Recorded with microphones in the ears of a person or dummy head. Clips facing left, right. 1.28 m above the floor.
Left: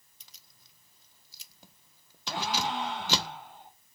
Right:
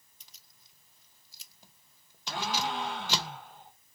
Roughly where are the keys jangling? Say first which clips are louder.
Left 3 dB; left.